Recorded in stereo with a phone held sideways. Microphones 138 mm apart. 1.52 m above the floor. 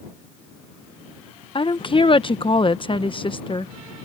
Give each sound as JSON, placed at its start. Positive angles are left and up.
{"t": 1.6, "sound": "a woman speaking", "side_deg": 40}